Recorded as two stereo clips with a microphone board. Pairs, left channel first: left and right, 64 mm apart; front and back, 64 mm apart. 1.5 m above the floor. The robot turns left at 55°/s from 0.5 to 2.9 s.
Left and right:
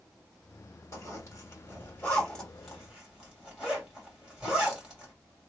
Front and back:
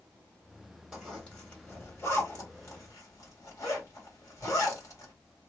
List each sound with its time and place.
0.9 s a zipper: 90° left, 2.0 m; by 5.1 s 20° right, 2.0 m